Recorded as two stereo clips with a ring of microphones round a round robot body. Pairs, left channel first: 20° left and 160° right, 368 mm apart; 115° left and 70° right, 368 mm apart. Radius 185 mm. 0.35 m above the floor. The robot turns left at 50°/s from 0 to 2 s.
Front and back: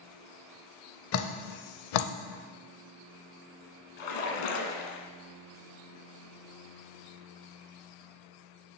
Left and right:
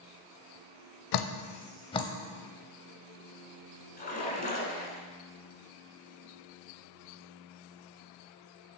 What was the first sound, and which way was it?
Dripping, 75° left.